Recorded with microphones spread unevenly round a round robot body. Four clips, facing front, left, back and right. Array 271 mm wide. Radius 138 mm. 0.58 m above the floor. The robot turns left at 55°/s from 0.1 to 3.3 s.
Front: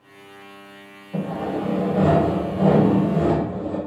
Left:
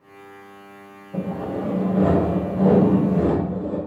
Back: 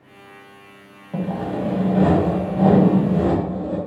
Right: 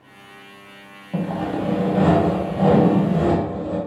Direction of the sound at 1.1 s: 100° right.